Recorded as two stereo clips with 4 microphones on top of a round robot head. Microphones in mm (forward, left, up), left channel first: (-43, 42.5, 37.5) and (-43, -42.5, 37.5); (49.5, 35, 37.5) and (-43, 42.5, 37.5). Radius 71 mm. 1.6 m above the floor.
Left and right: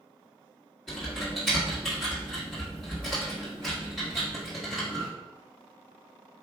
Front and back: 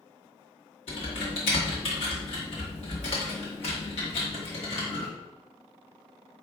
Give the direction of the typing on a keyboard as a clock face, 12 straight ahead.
12 o'clock.